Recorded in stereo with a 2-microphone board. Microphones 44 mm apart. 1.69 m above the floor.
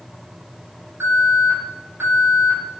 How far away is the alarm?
About 7 m.